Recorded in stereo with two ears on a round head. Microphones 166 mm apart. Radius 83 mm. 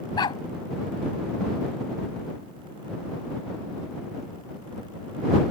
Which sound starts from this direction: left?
A dog barking, at 0.2 s.